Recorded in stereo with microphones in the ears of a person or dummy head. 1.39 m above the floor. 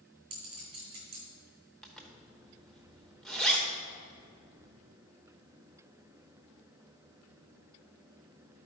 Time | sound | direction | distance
0.3 | a clink | 25° right (ahead or behind) | 1.7 m
1.8 | a zipper | 5° left (ahead or behind) | 0.9 m